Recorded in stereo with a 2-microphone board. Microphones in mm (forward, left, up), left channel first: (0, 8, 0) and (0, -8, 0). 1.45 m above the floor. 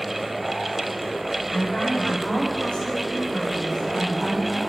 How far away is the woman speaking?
About 6 m.